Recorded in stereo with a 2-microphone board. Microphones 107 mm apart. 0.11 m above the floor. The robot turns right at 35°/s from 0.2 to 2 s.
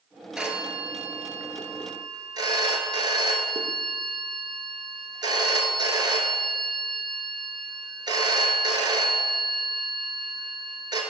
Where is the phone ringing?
175° right, 1.0 m; by 11.0 s 115° right, 1.0 m.